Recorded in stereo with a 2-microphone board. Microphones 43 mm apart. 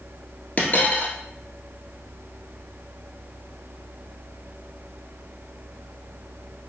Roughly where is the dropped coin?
Left.